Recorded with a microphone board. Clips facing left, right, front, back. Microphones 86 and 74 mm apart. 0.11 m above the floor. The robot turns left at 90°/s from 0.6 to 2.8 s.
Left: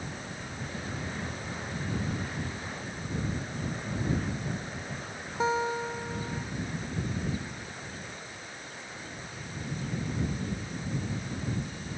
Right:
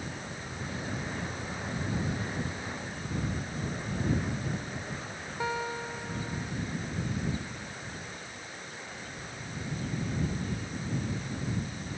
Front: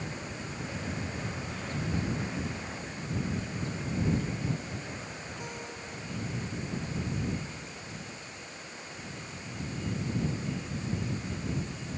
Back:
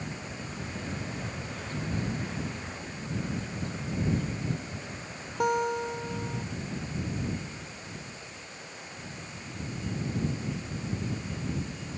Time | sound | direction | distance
5.4 | a guitar | 160° left | ?